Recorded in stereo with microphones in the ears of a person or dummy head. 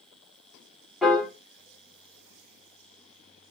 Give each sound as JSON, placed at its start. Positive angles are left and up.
{"t": 1.0, "sound": "a piano", "side_deg": -5, "distance_m": 0.7}